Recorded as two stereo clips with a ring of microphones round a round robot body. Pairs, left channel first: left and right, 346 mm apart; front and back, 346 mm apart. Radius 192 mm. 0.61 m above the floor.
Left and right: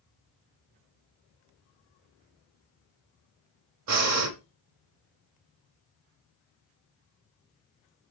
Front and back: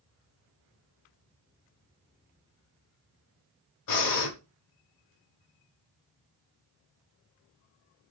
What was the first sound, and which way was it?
Breathing, 45° right.